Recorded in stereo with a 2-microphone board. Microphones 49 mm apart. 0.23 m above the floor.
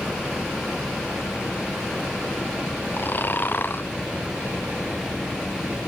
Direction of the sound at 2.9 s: 45° left (ahead or behind).